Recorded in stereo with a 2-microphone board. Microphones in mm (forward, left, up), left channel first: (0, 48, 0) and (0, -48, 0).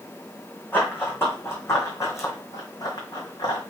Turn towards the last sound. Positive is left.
turn(degrees=50)  # may be behind; listen again after turning